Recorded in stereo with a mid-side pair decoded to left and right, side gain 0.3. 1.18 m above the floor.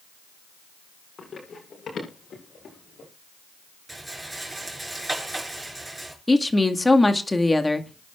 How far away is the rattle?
About 6 m.